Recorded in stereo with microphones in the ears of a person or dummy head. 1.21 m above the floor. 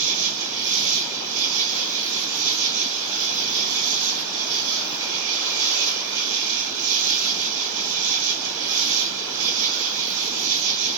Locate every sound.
0.0 s an insect: 75° right (ahead or behind), 1.3 m